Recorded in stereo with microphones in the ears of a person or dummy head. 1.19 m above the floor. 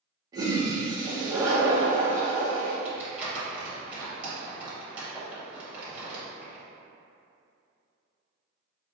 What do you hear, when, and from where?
0.3 s a toilet flushing: 20° right (ahead or behind), 0.7 m
2.9 s crumpling: 15° right (ahead or behind), 1.0 m